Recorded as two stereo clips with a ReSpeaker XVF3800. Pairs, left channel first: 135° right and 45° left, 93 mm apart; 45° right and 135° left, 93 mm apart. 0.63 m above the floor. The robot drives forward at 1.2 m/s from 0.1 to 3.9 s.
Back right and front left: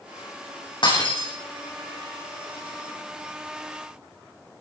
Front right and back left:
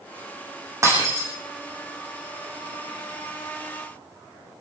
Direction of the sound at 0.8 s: 165° right.